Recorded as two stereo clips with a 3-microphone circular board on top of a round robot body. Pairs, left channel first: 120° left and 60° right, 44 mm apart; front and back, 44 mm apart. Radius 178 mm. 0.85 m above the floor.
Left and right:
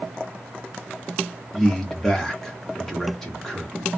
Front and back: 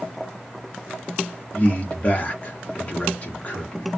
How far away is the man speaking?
About 1.2 m.